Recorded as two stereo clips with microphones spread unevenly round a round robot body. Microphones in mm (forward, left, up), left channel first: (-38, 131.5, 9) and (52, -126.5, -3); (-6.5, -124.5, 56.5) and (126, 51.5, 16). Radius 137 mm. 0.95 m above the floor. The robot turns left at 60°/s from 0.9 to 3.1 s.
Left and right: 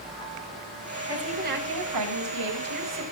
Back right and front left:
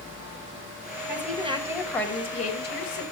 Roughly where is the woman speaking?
Ahead.